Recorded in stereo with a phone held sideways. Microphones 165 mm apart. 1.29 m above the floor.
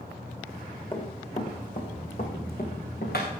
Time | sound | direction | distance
0.9 | running footsteps | 35° left (ahead or behind) | 3 m